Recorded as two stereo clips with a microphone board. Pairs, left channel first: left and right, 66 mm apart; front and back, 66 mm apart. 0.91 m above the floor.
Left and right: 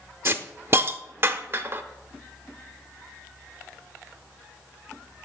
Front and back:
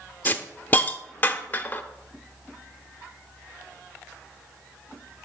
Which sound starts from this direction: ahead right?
A hiss, at 0.2 s.